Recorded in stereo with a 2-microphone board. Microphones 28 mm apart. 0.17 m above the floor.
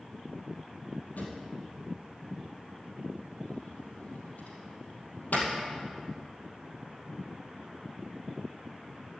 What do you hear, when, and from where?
1.2 s a drawer: 75° left (ahead or behind), 3 m